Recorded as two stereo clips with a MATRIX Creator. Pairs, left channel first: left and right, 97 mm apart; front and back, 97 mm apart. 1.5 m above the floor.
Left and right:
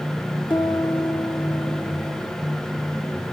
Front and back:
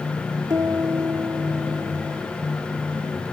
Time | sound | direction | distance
0.5 | a piano | 125° left | 1.6 m